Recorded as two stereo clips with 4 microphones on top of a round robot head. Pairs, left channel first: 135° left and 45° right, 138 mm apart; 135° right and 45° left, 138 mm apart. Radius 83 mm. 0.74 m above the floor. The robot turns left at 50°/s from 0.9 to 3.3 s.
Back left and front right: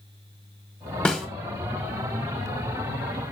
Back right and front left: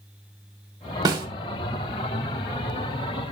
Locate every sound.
1.1 s a snare drum: 60° left, 0.6 m; by 1.3 s 50° left, 0.6 m